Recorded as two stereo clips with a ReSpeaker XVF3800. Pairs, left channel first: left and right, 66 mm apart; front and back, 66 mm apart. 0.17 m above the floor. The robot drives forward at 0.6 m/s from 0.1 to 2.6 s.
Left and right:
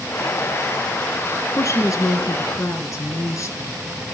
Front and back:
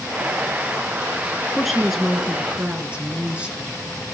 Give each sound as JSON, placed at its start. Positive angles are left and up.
{"t": 1.5, "sound": "a woman speaking", "azimuth_deg": 85, "distance_m": 1.7}